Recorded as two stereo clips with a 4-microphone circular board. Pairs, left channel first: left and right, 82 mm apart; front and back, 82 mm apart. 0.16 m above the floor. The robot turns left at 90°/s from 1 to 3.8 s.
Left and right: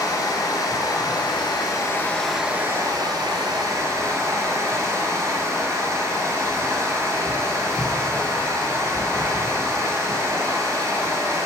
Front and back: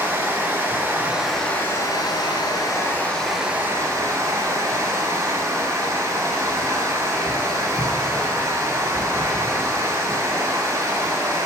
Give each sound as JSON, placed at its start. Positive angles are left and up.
{"t": 0.0, "sound": "running water", "azimuth_deg": 115, "distance_m": 0.8}